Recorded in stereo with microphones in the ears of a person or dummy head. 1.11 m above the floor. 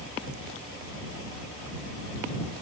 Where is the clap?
I don't hear a clap.